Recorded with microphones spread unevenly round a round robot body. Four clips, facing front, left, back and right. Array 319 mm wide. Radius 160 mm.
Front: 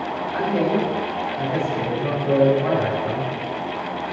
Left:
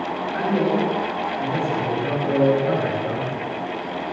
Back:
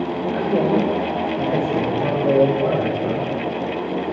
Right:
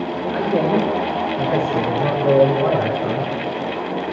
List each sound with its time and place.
0.3 s a man speaking: 75° right, 4.5 m